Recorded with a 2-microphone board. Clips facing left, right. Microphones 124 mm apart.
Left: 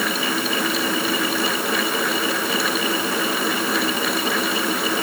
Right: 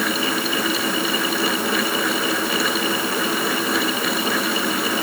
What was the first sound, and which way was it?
Only background noise.